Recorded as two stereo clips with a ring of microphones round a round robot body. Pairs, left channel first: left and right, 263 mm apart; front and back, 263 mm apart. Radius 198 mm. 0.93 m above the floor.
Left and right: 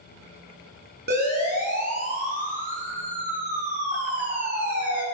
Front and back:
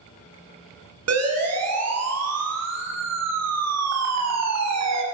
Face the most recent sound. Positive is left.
turn(degrees=-165)